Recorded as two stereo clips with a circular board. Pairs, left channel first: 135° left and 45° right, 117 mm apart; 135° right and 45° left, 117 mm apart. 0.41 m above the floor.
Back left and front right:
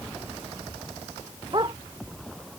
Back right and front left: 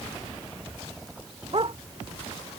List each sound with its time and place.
1.5 s a dog barking: 5° left